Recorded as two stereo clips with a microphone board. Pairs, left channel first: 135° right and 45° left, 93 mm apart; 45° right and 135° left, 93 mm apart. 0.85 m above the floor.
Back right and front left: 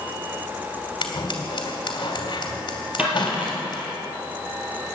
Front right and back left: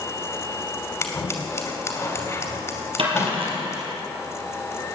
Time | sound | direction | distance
1.0 | scissors | 100° right | 2.5 m
3.0 | a dropped coin | 120° left | 4.5 m